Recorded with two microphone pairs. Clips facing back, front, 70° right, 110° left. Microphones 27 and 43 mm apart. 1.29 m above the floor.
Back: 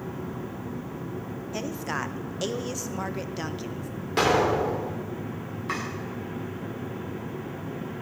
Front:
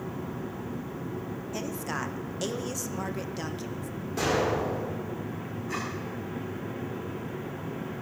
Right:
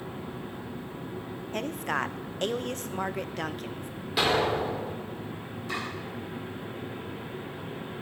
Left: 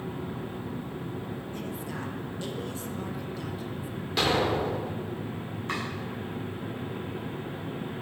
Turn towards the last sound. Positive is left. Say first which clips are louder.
# back 3 dB, left 1 dB
turn(degrees=160)